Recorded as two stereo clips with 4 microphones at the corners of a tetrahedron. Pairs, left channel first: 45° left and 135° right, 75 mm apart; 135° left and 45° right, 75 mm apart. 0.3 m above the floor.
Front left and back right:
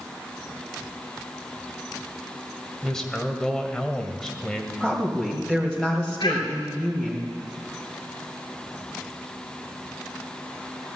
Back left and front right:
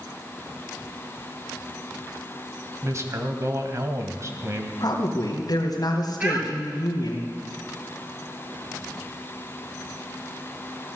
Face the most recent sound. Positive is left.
turn(degrees=25)